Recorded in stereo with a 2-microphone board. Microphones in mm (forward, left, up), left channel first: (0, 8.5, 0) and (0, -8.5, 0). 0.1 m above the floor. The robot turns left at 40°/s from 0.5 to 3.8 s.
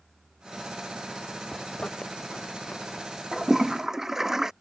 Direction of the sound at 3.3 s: Centre (ahead or behind).